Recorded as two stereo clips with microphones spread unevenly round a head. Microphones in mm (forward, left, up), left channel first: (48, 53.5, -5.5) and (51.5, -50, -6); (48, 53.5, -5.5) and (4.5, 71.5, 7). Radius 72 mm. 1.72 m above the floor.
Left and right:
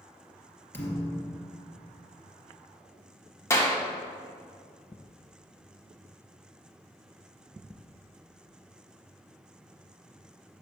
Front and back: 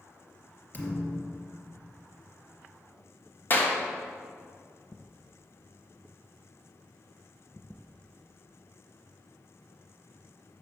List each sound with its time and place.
0.7 s a thud: 30° left, 2.5 m
3.5 s a clap: 30° left, 1.6 m